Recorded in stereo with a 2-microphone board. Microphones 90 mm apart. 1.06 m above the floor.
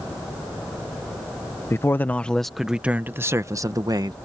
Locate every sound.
1.7 s a man speaking: 30° left (ahead or behind); by 4.2 s 50° right (ahead or behind)